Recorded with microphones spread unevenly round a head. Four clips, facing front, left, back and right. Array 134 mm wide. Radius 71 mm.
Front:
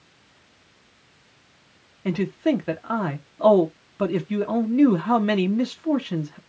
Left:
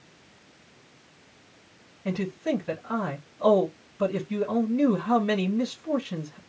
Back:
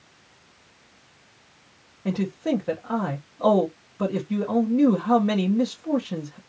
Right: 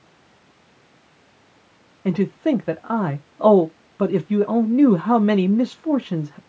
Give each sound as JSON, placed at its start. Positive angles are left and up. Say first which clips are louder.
{"t": 2.0, "sound": "a man speaking", "louder": "right 8 dB, front 3 dB", "azimuth_deg": -85, "distance_m": 1.1}